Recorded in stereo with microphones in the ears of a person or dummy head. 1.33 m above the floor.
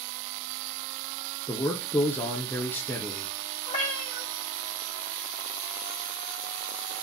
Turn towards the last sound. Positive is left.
turn(degrees=40)  # may be behind; listen again after turning